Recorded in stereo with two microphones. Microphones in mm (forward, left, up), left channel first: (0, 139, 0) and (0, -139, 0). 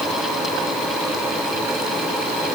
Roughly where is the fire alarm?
I don't hear a fire alarm.